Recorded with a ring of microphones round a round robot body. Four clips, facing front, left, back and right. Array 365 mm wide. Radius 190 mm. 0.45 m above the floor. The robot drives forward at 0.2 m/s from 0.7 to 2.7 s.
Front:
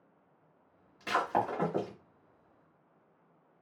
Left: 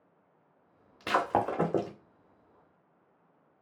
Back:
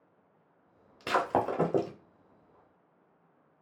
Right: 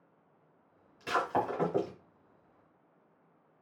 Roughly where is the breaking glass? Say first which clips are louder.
Left 3 dB, back 2 dB; behind left.